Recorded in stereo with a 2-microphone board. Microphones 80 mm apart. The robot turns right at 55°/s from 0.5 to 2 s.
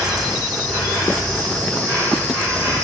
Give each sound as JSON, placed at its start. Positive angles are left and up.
{"t": 0.0, "sound": "an insect", "azimuth_deg": -115, "distance_m": 3.5}